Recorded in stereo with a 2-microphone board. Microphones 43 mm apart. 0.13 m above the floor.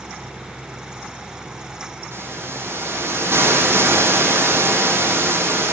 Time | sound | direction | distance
2.1 | a hiss | 70° right (ahead or behind) | 6 m